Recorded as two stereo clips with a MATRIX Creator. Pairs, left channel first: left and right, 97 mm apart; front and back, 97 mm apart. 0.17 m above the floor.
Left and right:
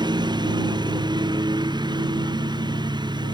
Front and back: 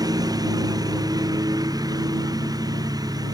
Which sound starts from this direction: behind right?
A lawn mower, at 0.0 s.